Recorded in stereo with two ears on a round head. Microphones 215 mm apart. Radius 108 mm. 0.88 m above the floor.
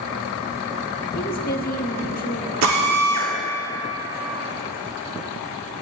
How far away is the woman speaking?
About 1.3 m.